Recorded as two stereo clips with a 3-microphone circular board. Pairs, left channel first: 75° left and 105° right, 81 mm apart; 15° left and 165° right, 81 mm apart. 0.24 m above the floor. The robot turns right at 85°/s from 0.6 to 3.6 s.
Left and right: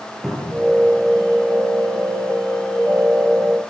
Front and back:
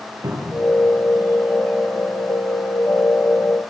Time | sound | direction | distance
0.2 | a cupboard door | 165° left | 5 m